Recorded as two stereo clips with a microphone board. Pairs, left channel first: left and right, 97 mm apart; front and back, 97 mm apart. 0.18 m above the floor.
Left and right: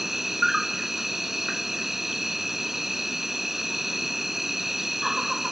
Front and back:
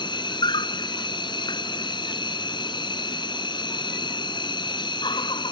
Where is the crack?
No crack in this recording.